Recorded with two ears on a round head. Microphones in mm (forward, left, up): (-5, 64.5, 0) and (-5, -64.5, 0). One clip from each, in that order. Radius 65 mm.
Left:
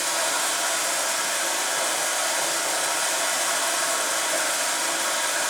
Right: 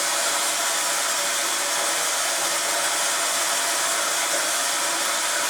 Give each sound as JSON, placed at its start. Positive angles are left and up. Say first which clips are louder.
{"t": 0.0, "sound": "running water", "louder": "right 1 dB", "side_deg": 5, "distance_m": 4.5}